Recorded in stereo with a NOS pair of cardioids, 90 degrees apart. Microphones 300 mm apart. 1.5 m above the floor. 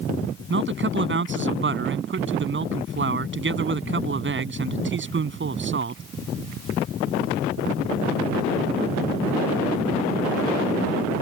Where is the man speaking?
40° right.